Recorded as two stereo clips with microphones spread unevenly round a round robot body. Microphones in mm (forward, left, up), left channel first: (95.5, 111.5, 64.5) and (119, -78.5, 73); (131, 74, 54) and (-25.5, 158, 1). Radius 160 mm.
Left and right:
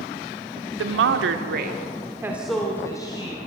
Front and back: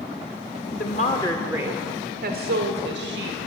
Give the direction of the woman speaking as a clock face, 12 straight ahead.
3 o'clock.